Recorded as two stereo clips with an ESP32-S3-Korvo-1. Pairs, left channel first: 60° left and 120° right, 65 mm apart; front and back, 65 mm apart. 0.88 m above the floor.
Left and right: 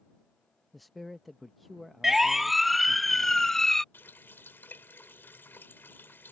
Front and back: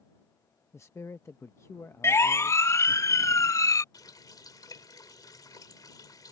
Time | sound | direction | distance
0.7 | a man speaking | 30° right | ?
2.0 | a siren | 35° right | ?
3.9 | a running tap | 5° left | ?